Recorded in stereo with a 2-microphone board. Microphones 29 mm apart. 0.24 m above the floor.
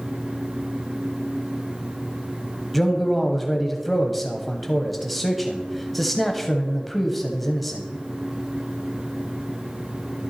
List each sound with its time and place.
2.7 s a man speaking: centre (ahead or behind), 1.1 m